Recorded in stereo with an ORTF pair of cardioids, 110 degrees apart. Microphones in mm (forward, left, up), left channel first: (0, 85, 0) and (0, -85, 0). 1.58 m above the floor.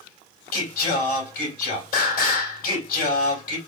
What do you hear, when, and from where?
0.5 s singing: 65° left, 4 m